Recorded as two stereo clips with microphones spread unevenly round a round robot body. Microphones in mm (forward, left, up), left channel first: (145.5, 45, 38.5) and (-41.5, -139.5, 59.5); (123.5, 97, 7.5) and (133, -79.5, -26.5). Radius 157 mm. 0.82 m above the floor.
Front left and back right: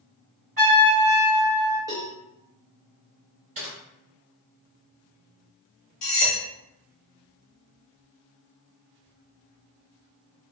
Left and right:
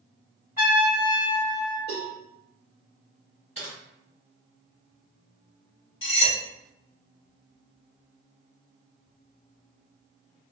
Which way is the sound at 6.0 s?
80° left.